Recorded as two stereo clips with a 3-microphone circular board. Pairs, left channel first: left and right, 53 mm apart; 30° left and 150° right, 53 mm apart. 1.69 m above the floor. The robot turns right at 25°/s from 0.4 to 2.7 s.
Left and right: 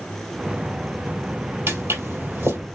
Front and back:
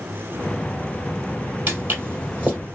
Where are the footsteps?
115° right, 3 m; by 2.6 s 95° right, 3 m.